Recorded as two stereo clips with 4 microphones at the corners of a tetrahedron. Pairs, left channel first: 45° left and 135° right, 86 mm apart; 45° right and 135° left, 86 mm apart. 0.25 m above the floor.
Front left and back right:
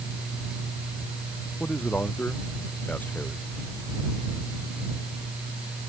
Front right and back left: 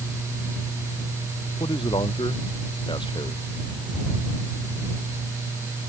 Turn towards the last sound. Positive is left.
turn(degrees=-25)